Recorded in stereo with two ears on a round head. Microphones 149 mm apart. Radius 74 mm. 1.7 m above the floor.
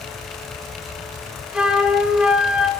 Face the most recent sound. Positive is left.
turn(degrees=-5)  # may be behind; listen again after turning